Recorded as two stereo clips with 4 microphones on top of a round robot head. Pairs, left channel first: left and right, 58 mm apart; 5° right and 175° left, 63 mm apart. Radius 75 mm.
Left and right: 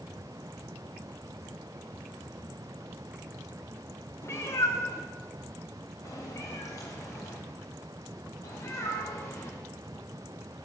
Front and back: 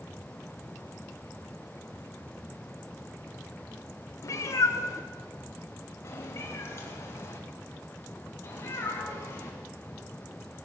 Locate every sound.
4.2 s a cat meowing: 35° left, 1.6 m; by 9.6 s 50° left, 4.5 m